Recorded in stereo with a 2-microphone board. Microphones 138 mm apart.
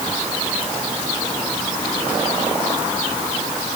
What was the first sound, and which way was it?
Only background noise.